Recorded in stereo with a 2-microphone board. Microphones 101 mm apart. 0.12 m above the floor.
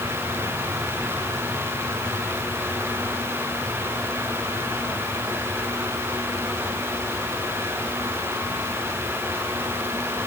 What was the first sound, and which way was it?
Only background noise.